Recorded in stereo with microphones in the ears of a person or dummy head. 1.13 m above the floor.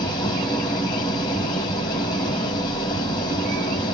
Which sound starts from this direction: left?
An engine running, at 0.0 s.